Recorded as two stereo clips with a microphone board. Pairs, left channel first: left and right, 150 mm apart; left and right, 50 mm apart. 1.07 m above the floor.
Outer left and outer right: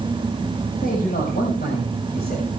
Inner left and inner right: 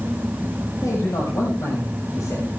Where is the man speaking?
75° left (ahead or behind), 6 m; by 2.5 s 85° left, 5.5 m.